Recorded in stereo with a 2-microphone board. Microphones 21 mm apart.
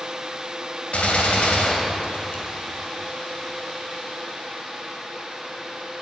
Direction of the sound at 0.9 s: 75° left (ahead or behind).